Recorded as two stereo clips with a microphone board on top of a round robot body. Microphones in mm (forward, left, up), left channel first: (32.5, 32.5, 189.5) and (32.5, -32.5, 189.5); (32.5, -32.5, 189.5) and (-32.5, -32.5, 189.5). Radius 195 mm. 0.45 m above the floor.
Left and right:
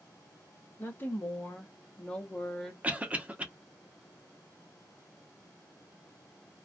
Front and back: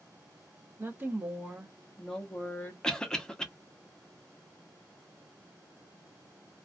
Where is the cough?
65° right, 1.1 m.